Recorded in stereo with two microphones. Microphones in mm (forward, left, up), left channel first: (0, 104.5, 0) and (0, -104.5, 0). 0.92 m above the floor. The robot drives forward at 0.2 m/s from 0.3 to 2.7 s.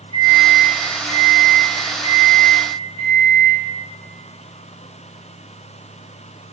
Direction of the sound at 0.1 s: 25° left (ahead or behind).